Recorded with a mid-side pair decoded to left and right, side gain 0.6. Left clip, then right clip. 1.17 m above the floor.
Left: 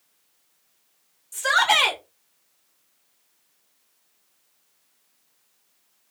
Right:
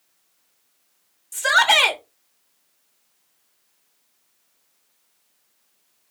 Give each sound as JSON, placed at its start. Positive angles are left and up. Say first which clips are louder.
{"t": 1.3, "sound": "a shout", "louder": "right 3 dB", "azimuth_deg": -30, "distance_m": 1.1}